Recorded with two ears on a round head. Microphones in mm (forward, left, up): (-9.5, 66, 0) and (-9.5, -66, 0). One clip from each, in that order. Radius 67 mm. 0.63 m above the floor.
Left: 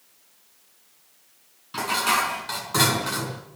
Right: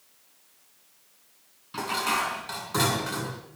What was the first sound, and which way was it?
Dishes clattering, 10° left (ahead or behind).